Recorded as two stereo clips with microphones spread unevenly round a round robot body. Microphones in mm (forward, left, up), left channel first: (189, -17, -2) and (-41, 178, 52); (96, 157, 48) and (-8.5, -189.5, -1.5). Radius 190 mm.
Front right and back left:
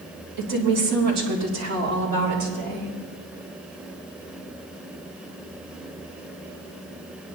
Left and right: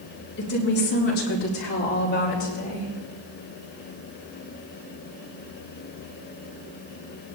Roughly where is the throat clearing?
No throat clearing in this recording.